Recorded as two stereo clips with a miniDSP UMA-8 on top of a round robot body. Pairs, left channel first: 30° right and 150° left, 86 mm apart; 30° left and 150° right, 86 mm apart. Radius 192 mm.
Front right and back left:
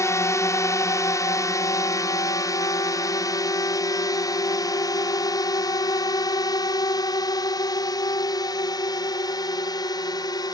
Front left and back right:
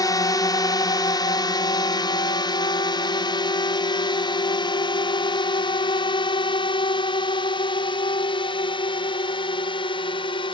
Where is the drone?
10° left.